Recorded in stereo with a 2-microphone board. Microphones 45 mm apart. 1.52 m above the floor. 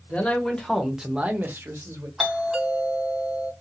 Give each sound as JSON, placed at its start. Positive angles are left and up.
{"t": 0.1, "sound": "a man speaking", "side_deg": 25, "distance_m": 1.3}
{"t": 2.2, "sound": "a doorbell", "side_deg": -5, "distance_m": 1.7}